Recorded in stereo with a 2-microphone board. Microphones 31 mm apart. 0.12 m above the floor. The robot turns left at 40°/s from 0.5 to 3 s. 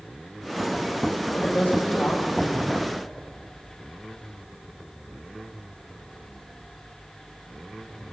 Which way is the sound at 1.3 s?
80° left.